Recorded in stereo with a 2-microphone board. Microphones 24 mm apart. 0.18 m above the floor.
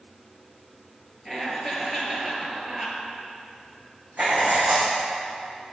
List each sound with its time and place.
1.2 s laughter: 20° right (ahead or behind), 3 m
4.2 s writing: 80° right, 3.5 m